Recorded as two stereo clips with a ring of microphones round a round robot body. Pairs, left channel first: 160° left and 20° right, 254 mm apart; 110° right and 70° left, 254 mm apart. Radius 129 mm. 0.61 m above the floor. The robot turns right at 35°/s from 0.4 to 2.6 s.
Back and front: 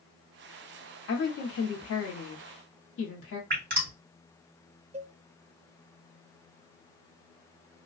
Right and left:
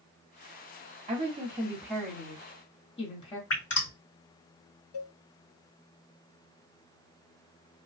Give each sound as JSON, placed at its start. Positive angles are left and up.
{"t": 1.1, "sound": "a woman speaking", "azimuth_deg": 130, "distance_m": 1.4}
{"t": 3.5, "sound": "dripping", "azimuth_deg": -75, "distance_m": 2.5}
{"t": 4.9, "sound": "a cowbell", "azimuth_deg": -90, "distance_m": 0.8}